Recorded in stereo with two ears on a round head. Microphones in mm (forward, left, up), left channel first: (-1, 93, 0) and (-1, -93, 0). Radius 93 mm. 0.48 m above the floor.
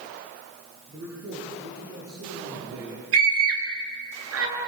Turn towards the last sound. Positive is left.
turn(degrees=-70)  # may be behind; listen again after turning